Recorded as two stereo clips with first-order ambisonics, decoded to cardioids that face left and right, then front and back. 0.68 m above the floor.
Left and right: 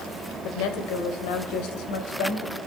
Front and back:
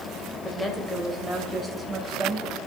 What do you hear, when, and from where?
0.4 s a woman speaking: 75° left, 2.5 m; by 2.6 s 100° left, 3 m